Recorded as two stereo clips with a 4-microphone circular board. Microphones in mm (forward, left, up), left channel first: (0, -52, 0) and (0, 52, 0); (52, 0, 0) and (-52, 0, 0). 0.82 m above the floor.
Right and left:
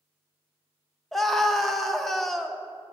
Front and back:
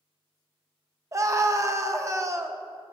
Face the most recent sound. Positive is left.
turn(degrees=-175)